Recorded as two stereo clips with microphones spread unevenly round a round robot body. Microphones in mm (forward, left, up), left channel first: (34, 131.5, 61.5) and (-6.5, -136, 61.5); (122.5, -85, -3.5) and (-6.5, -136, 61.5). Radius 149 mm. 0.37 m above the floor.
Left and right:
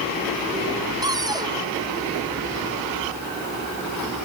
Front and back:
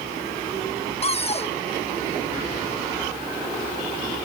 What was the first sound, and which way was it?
A cupboard door, 20° right.